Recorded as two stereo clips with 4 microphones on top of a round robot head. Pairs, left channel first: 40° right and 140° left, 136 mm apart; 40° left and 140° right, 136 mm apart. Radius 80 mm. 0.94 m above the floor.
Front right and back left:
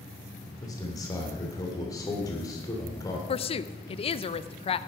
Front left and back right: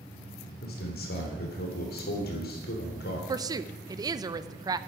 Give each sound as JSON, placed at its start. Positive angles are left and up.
{"t": 0.6, "sound": "a man speaking", "azimuth_deg": 25, "distance_m": 3.0}
{"t": 3.3, "sound": "a woman speaking", "azimuth_deg": -80, "distance_m": 0.6}